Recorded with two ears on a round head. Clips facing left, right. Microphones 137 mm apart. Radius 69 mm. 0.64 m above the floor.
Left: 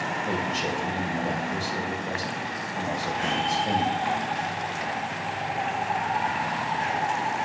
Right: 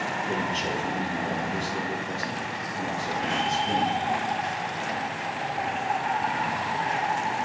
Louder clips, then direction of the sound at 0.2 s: Left 1 dB; 70° left (ahead or behind).